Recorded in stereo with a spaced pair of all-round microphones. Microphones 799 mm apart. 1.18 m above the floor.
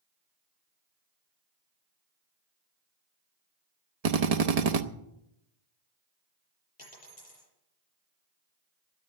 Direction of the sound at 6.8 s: 40° left (ahead or behind).